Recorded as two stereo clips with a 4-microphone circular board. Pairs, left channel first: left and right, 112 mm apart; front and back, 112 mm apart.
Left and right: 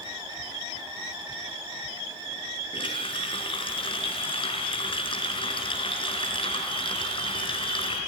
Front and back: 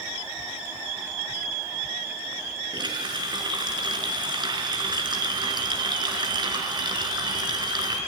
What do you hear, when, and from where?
2.7 s a running tap: 130° left, 5 m